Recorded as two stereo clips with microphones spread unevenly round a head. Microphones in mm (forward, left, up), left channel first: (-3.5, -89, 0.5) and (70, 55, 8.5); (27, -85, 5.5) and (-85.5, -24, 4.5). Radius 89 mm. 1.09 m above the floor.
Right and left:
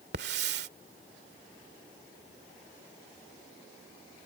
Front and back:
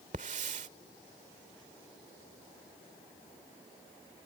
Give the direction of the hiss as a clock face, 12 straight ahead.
9 o'clock.